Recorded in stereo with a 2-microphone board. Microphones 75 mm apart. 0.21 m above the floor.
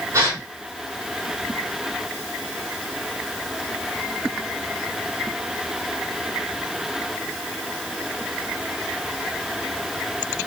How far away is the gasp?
About 1.5 m.